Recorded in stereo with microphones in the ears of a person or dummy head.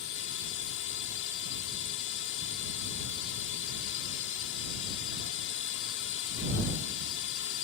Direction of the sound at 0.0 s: 60° left (ahead or behind).